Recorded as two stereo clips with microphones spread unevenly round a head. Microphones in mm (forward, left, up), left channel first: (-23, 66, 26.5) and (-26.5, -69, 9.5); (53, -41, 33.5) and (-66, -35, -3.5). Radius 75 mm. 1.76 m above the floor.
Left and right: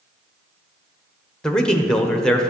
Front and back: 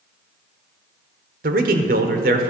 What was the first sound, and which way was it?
A man speaking, 170° left.